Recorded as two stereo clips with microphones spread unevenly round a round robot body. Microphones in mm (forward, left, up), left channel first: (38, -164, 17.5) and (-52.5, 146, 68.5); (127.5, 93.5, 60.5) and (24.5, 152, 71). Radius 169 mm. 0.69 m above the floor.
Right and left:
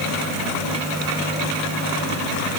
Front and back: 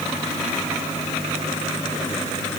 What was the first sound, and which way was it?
Only background noise.